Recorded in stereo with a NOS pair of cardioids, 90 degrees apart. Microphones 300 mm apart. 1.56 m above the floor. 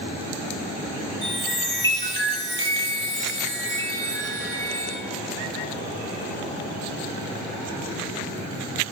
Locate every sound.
1.2 s a chime: 10° left, 0.9 m